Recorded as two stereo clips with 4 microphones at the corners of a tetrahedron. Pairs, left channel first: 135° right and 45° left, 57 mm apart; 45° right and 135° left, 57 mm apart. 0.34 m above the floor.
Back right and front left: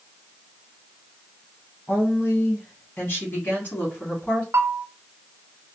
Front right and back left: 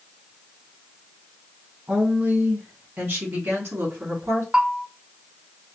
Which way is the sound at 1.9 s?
170° right.